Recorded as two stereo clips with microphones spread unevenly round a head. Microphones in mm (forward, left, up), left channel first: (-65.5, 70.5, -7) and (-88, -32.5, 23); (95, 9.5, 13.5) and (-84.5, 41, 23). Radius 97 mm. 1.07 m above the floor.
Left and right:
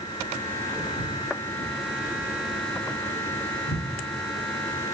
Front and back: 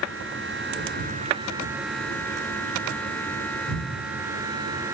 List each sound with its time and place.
0.8 s footsteps: 175° left, 1.9 m; by 3.8 s 85° left, 1.6 m